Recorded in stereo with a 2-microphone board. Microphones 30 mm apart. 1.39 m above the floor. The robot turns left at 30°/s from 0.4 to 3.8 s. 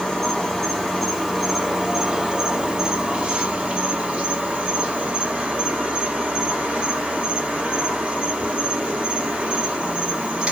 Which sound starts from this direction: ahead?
An insect, at 0.0 s.